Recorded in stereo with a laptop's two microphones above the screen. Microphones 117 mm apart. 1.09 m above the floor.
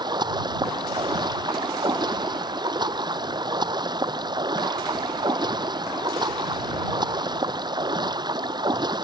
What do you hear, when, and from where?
0.0 s running water: 40° right (ahead or behind)